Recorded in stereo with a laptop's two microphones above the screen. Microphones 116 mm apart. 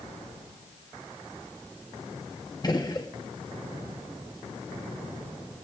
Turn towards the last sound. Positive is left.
turn(degrees=35)  # may be behind; listen again after turning